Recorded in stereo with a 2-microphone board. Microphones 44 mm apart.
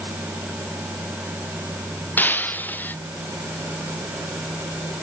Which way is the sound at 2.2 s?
45° left (ahead or behind).